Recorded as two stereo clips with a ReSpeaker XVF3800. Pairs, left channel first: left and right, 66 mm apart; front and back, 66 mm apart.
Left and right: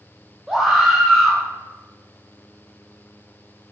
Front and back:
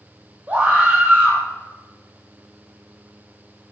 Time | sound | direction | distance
0.5 | a scream | 170° right | 1.3 m